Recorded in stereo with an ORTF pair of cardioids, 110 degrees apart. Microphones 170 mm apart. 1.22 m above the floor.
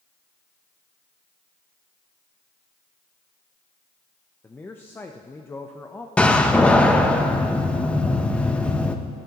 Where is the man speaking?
15° left, 0.8 m.